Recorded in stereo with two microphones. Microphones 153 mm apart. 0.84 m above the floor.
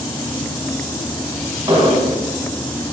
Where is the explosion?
25° right (ahead or behind), 2.5 m.